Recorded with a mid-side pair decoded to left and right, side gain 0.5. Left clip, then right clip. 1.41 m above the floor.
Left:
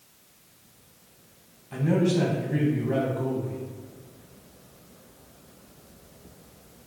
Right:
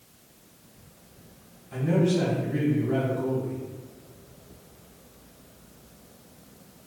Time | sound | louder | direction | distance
1.7 | a man speaking | even | 25° left | 1.4 m